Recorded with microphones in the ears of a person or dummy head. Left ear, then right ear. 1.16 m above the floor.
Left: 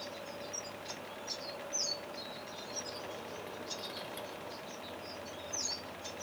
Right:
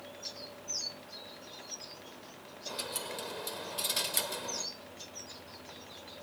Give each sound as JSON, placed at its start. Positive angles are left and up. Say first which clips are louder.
{"t": 2.7, "sound": "a dropped coin", "louder": "right 6 dB", "side_deg": -45}